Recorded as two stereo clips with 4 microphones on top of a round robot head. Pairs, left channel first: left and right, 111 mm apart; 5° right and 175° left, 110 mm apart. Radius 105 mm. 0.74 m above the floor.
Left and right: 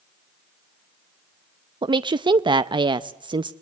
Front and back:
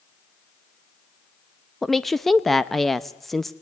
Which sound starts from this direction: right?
A woman speaking, at 1.8 s.